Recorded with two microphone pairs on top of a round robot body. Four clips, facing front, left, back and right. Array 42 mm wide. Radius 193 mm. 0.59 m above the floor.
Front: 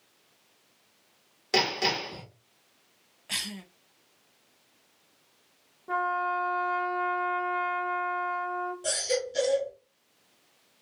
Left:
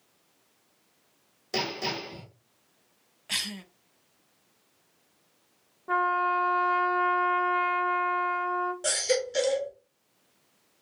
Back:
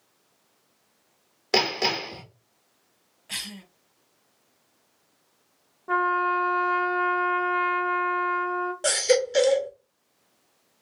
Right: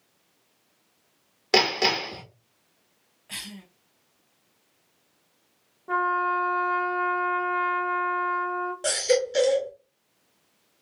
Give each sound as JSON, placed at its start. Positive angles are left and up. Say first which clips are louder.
{"t": 1.5, "sound": "hammering", "louder": "right 9 dB, back 2 dB", "azimuth_deg": -115, "distance_m": 2.5}
{"t": 3.3, "sound": "a cough", "louder": "left 6 dB, front 1 dB", "azimuth_deg": 70, "distance_m": 1.1}
{"t": 5.9, "sound": "a trumpet", "louder": "right 1 dB, back 5 dB", "azimuth_deg": 165, "distance_m": 1.1}
{"t": 8.8, "sound": "a baby crying", "louder": "right 4 dB, back 10 dB", "azimuth_deg": -170, "distance_m": 1.1}